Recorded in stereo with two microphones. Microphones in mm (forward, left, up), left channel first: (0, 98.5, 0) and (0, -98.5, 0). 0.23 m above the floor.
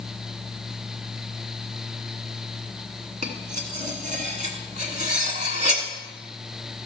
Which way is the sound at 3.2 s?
40° right (ahead or behind).